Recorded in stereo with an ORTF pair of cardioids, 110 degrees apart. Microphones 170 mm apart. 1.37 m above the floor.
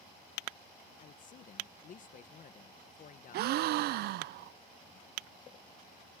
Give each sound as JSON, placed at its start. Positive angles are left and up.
{"t": 1.0, "sound": "a man speaking", "azimuth_deg": 50}
{"t": 3.3, "sound": "a gasp", "azimuth_deg": -70}